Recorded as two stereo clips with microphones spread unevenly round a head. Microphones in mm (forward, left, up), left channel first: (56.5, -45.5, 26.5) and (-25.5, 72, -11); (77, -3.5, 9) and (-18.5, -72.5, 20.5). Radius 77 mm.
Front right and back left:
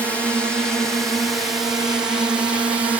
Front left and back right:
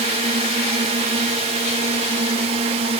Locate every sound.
0.0 s a drone: 145° right; by 3.0 s 170° right